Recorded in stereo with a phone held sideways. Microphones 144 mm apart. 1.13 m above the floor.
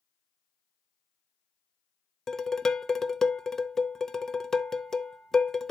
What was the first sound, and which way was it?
Dishes clattering, 5° left (ahead or behind).